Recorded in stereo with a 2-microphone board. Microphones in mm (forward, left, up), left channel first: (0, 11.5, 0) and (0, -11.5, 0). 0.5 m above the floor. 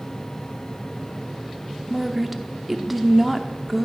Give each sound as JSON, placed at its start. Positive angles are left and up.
{"t": 1.9, "sound": "a woman speaking", "side_deg": -10, "distance_m": 0.6}